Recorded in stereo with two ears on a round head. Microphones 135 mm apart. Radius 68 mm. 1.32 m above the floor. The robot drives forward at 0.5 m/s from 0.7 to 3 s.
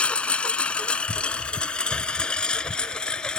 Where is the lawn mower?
10° left (ahead or behind); by 3.4 s 5° left (ahead or behind).